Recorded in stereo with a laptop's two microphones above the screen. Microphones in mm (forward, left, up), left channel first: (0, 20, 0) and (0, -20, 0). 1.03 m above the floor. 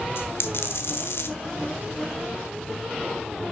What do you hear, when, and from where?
0.2 s a dropped coin: 70° left (ahead or behind), 1.3 m